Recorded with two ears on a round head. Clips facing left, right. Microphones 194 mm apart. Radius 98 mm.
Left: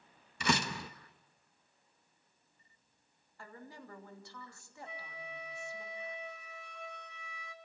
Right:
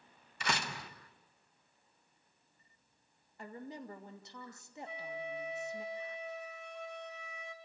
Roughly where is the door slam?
Left.